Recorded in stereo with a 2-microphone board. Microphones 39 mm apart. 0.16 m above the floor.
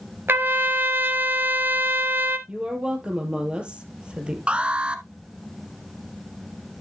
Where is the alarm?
25° right (ahead or behind), 1.0 m.